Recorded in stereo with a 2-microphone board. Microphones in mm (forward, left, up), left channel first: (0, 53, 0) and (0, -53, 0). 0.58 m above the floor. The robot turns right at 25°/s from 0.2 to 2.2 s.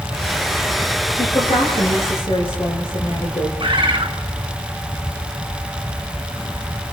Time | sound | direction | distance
1.2 | a woman speaking | 85° left | 10 m
3.6 | a bird | 50° right (ahead or behind) | 2.5 m